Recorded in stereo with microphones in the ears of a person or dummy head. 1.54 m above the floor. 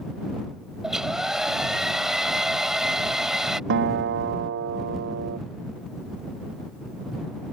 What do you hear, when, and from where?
0.8 s a hair dryer: 5° right (ahead or behind)
3.7 s a guitar: 65° right (ahead or behind)